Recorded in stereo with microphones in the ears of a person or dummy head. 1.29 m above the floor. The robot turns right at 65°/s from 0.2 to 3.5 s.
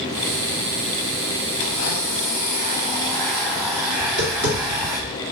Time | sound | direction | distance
1.6 | a blender | 50° left | 0.7 m
4.0 | tapping | 50° left (ahead or behind) | 2 m